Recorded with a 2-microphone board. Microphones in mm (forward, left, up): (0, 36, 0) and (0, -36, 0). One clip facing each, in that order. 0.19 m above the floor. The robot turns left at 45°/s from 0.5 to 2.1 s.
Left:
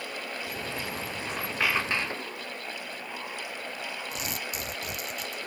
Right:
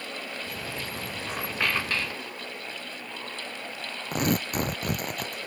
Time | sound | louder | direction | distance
1.3 | a squeak | even | 165° right | ?
4.1 | tearing paper | right 9 dB | 50° right (ahead or behind) | ?